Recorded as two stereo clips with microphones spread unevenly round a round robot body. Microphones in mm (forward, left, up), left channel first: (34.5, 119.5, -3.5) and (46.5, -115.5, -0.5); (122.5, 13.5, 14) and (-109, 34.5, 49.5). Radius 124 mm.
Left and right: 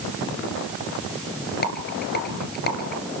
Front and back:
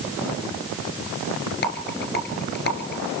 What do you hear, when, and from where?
1.6 s a rattle: 45° left, 1.9 m